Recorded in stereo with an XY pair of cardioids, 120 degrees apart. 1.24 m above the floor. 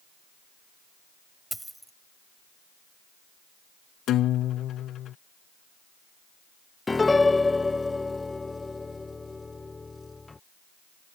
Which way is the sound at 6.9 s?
20° left.